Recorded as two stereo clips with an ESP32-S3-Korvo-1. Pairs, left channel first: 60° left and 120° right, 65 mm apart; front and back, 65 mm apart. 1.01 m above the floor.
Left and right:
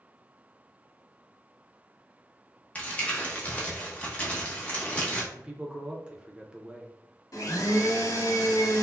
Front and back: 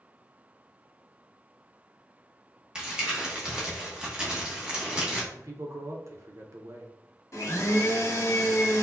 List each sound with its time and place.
2.8 s crumpling: 115° left, 0.9 m
5.3 s a man speaking: 170° left, 0.6 m
7.3 s a blender: 40° left, 0.9 m